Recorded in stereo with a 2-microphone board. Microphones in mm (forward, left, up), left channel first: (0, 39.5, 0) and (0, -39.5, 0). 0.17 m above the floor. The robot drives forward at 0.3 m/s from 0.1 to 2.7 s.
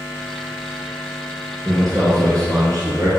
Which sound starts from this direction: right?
A man speaking, at 1.6 s.